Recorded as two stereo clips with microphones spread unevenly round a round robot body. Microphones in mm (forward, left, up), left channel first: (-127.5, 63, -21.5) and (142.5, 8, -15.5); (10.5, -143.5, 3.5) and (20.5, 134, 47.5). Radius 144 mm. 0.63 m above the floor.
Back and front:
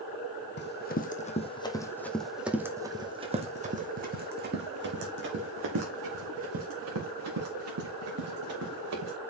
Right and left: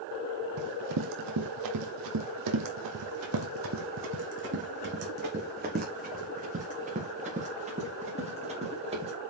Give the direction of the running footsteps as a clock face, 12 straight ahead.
8 o'clock.